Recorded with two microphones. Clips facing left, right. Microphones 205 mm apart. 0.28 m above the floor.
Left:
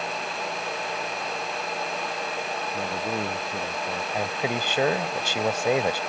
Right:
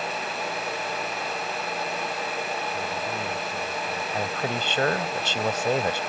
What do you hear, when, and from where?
2.7 s a man speaking: 70° left (ahead or behind); by 4.0 s 75° left (ahead or behind)
4.1 s a man speaking: 10° left (ahead or behind)